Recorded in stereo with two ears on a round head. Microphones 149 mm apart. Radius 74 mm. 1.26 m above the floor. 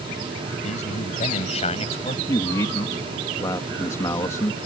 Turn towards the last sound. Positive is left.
turn(degrees=20)  # may be behind; listen again after turning